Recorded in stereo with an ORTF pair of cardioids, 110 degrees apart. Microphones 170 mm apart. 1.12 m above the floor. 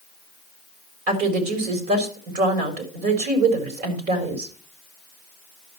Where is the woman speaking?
65° right, 4 m.